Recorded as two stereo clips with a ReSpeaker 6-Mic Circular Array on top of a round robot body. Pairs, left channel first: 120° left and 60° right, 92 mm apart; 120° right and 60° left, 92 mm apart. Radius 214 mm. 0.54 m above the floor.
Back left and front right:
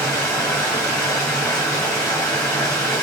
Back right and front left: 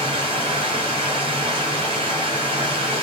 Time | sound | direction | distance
0.0 | running water | 55° left | 0.8 m